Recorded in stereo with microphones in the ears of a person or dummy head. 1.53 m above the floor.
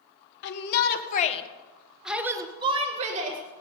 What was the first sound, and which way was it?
A shout, 65° left (ahead or behind).